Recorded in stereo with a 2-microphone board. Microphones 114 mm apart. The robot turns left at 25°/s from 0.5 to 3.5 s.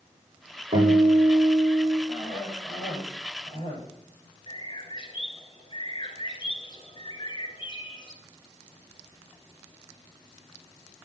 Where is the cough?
165° left, 8 m; by 3.8 s 130° left, 8 m.